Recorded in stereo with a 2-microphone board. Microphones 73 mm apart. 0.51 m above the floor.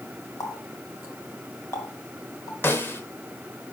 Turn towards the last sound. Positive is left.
turn(degrees=30)  # may be behind; listen again after turning